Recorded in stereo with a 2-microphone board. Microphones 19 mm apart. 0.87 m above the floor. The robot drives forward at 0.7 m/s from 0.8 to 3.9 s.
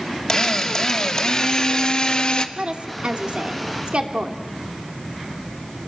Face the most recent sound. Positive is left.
turn(degrees=-60)  # may be behind; listen again after turning